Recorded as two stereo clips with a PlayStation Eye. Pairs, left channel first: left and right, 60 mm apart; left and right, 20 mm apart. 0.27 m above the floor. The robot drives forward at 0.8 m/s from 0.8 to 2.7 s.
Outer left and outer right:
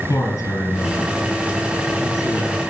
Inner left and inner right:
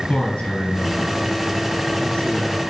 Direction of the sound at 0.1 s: 80° left.